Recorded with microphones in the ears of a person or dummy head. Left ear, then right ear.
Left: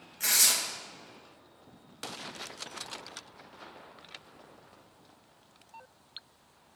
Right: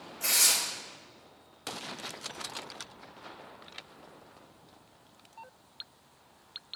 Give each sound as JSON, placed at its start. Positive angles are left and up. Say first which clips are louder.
{"t": 0.2, "sound": "tearing paper", "louder": "even", "side_deg": 60, "distance_m": 0.7}